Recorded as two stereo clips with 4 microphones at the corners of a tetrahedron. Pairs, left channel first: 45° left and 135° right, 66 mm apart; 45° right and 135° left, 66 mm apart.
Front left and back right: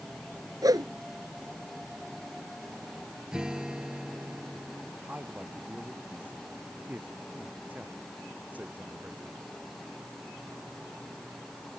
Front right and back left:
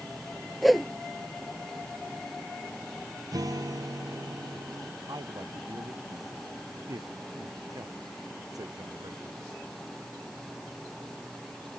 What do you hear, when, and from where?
0.6 s a whoosh: 135° right
3.3 s a guitar: 145° left
5.1 s a man speaking: 160° left